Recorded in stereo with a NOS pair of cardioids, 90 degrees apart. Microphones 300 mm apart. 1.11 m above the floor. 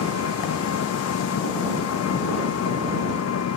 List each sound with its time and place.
0.0 s an engine running: 55° left